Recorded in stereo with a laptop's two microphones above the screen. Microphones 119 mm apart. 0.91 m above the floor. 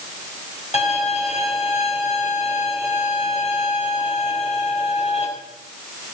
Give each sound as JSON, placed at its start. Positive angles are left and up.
{"t": 0.7, "sound": "a violin", "side_deg": 65, "distance_m": 4.5}